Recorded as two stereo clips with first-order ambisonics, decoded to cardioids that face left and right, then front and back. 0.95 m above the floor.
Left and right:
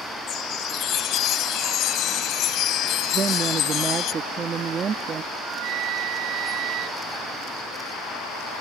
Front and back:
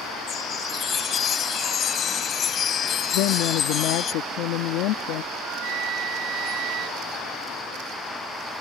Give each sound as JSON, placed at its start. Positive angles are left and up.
{"t": 0.3, "sound": "a chime", "azimuth_deg": 55}
{"t": 3.1, "sound": "a woman speaking", "azimuth_deg": -25}
{"t": 5.3, "sound": "a flute", "azimuth_deg": -130}